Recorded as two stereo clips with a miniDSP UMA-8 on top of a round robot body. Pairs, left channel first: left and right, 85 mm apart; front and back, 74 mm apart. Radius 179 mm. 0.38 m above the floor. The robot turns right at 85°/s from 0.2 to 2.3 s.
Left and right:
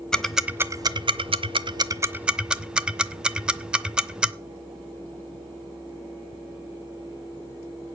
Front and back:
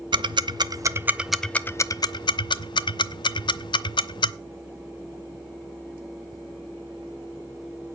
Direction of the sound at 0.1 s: 170° left.